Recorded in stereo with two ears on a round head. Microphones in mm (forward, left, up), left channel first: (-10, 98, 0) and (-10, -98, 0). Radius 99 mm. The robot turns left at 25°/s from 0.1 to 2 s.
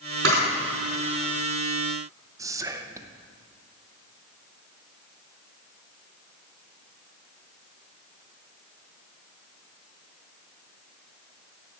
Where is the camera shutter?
55° right (ahead or behind), 4.5 m; by 0.4 s 60° right (ahead or behind), 4.5 m.